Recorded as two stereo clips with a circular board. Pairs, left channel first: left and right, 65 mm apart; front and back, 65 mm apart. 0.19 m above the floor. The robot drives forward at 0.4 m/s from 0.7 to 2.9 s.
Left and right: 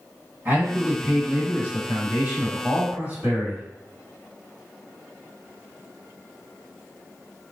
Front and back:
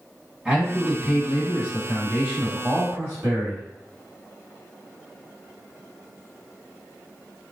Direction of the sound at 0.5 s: 120° right.